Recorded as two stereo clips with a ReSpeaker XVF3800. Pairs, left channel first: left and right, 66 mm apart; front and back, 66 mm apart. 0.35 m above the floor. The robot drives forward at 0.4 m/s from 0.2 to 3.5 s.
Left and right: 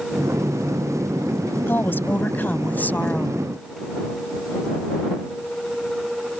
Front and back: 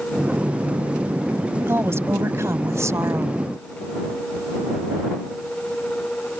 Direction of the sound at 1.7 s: 140° left.